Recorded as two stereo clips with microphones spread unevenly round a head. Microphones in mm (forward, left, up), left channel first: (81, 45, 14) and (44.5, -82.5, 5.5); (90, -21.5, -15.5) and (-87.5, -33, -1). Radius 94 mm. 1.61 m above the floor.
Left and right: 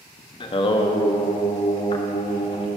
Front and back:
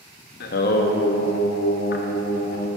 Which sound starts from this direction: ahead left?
Singing, at 0.4 s.